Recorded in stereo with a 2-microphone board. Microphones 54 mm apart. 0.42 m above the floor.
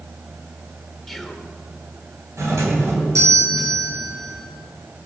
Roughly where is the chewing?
I don't hear chewing.